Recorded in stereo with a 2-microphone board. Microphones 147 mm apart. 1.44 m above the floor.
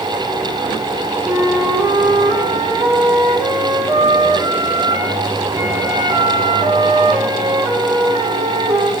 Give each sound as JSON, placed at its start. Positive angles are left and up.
{"t": 1.2, "sound": "a flute", "side_deg": -25, "distance_m": 3.5}